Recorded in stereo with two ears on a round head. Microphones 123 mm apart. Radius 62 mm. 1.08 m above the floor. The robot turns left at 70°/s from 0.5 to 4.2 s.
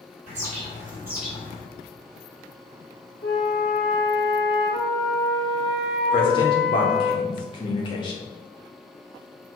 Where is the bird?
125° right, 3 m; by 1.6 s 155° left, 3 m.